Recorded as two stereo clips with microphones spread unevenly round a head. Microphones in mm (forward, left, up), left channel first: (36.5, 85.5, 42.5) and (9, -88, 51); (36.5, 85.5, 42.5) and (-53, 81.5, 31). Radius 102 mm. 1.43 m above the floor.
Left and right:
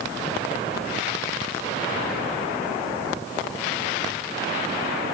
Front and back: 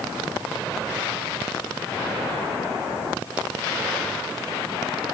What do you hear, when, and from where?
Only background noise.